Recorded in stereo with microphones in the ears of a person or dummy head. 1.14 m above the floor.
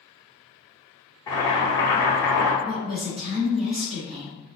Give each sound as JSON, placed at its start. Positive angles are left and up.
{"t": 1.3, "sound": "boiling", "side_deg": 20, "distance_m": 0.9}
{"t": 2.6, "sound": "a woman speaking", "side_deg": -30, "distance_m": 1.0}